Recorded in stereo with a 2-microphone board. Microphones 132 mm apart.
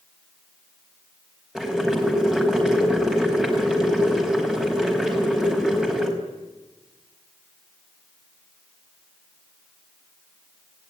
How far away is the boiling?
About 4.5 m.